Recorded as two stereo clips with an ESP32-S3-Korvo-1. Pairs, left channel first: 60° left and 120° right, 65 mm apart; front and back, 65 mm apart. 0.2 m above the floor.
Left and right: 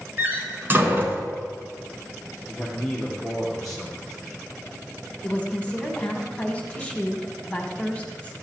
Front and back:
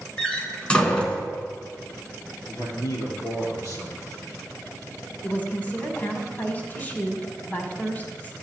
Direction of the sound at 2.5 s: 25° right.